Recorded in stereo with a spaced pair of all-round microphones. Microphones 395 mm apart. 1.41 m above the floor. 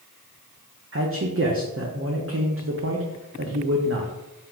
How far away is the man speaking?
About 0.6 m.